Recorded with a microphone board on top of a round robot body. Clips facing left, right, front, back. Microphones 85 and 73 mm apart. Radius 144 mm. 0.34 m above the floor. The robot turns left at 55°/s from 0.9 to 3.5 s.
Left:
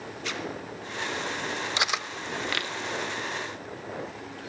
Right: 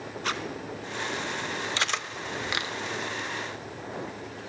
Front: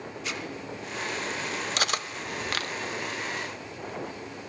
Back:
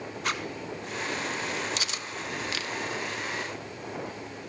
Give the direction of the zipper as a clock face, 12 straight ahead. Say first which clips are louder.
Right 3 dB, back 5 dB; 5 o'clock.